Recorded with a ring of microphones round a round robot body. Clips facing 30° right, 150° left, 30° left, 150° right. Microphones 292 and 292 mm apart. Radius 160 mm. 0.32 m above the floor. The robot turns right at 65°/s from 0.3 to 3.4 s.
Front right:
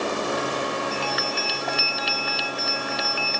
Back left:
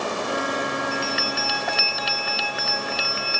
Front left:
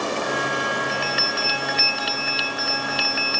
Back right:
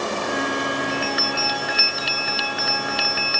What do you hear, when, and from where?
0.9 s a bell: 70° left; by 3.4 s 125° right